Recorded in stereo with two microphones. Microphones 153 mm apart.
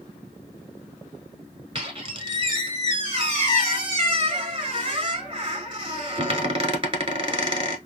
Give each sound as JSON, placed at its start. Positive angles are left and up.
{"t": 1.8, "sound": "a squeak", "side_deg": -35, "distance_m": 1.0}